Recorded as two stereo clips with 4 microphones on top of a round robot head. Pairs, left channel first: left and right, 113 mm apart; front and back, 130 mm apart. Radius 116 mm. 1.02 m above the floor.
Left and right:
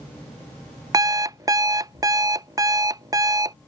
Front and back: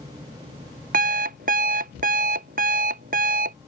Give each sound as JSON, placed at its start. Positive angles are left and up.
{"t": 0.9, "sound": "an alarm clock", "azimuth_deg": -150}